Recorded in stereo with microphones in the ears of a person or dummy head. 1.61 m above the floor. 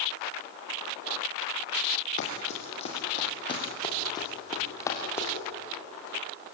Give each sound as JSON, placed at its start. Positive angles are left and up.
{"t": 2.2, "sound": "running footsteps", "side_deg": 45, "distance_m": 3.5}